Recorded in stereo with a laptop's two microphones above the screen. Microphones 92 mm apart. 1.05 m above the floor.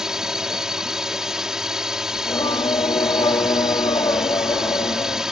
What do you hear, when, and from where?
0.0 s a drone: 5° right (ahead or behind)
2.1 s singing: 65° left (ahead or behind)